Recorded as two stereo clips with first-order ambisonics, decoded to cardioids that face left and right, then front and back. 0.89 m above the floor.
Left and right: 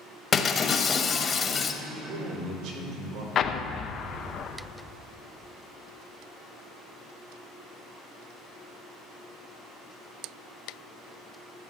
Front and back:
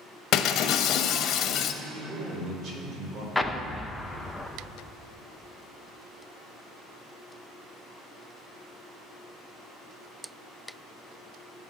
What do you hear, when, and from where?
0.3 s breaking glass: 25° left, 0.9 m
1.8 s a man speaking: 125° right, 3 m
3.4 s an explosion: 85° left, 0.7 m